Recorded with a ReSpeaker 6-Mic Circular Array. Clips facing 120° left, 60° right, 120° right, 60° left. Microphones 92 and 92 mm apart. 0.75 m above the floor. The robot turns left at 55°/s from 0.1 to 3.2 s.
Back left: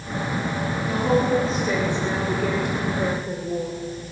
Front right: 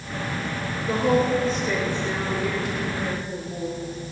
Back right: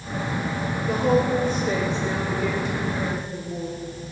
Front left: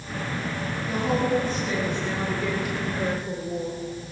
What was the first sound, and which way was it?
A woman speaking, 115° right.